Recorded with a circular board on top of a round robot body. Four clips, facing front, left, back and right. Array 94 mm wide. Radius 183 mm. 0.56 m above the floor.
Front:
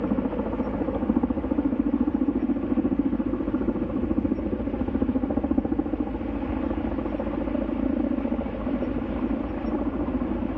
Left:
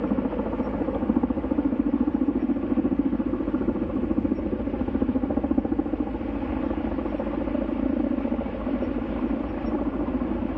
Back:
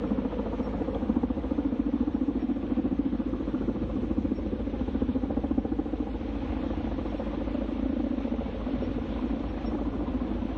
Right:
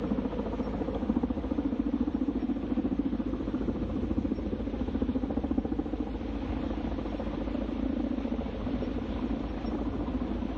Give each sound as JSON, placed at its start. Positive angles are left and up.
{"t": 0.0, "sound": "a helicopter", "azimuth_deg": 50}